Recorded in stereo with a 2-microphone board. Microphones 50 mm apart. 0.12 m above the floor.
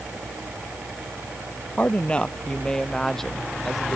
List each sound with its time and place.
1.8 s a woman speaking: 25° left (ahead or behind); by 4.0 s centre (ahead or behind)